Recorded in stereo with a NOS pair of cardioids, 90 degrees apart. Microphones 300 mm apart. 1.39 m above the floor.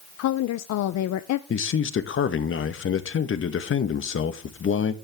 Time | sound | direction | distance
0.2 | a woman speaking | 65° left | 0.6 m
1.5 | a man speaking | 45° left | 1.3 m